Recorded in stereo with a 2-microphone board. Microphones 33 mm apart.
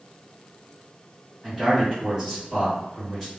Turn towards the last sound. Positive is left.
turn(degrees=5)  # may be behind; listen again after turning